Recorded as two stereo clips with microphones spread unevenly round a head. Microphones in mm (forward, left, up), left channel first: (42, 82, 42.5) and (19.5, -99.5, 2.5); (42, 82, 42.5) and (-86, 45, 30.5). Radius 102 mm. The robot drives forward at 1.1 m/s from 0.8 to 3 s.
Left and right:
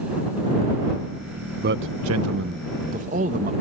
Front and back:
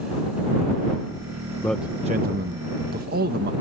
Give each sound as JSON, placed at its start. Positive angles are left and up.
{"t": 1.6, "sound": "a man speaking", "azimuth_deg": -55}